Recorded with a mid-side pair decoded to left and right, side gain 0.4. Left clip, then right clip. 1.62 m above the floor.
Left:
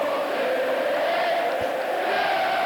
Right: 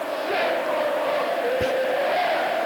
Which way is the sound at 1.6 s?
55° right.